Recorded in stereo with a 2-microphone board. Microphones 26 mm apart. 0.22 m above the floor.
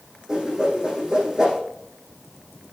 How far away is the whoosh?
About 5.5 m.